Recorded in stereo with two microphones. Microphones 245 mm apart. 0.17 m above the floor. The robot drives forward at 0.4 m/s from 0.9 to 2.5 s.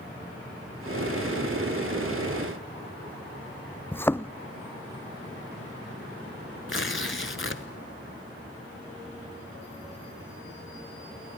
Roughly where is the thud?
Centre.